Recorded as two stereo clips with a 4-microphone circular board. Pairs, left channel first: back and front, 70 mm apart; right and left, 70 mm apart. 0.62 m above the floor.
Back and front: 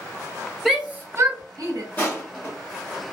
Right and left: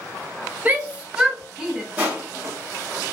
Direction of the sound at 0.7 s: 90° left.